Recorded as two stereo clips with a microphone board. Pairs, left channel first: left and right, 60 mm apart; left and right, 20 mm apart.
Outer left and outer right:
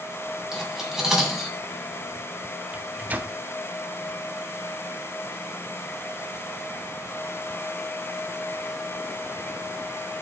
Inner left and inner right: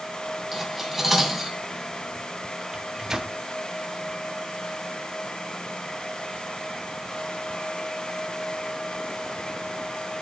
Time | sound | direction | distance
0.5 | cutlery clinking | 10° right (ahead or behind) | 2 m
2.7 | a microwave | 25° right (ahead or behind) | 0.6 m